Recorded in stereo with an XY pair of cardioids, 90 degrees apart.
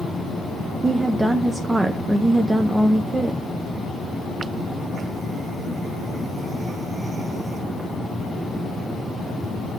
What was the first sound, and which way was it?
A woman speaking, 20° right.